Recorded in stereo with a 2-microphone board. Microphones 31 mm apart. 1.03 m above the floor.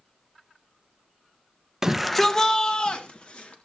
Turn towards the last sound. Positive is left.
turn(degrees=45)  # may be behind; listen again after turning